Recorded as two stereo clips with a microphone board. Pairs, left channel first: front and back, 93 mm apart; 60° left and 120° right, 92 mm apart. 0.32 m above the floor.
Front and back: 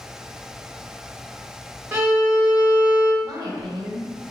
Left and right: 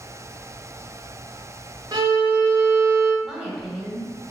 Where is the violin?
115° right, 1.4 m.